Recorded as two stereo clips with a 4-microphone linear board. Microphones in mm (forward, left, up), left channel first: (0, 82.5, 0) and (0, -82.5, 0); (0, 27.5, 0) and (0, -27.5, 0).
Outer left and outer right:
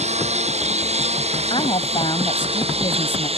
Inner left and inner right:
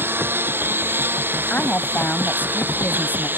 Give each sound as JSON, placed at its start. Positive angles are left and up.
{"t": 0.0, "sound": "a lawn mower", "side_deg": -40}
{"t": 1.5, "sound": "a woman speaking", "side_deg": 35}